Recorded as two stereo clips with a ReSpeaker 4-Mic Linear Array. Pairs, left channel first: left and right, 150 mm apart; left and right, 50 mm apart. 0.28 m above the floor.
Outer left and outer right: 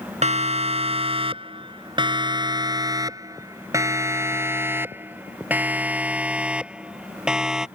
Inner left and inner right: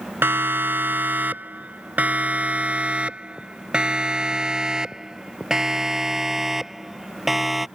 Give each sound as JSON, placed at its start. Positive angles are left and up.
{"t": 0.2, "sound": "a siren", "side_deg": -50}